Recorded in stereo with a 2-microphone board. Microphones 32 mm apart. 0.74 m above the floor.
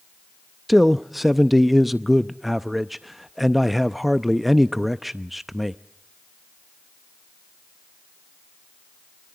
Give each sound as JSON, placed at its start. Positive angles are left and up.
{"t": 0.7, "sound": "a man speaking", "side_deg": -5, "distance_m": 0.5}